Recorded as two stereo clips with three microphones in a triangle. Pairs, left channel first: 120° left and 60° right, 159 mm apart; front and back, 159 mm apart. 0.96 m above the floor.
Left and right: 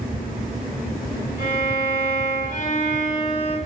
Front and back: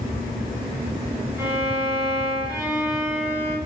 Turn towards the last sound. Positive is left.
turn(degrees=105)